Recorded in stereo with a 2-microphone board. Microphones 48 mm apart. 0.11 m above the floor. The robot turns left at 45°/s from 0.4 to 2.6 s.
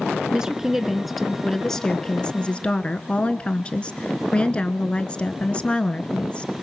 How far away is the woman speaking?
About 1.1 m.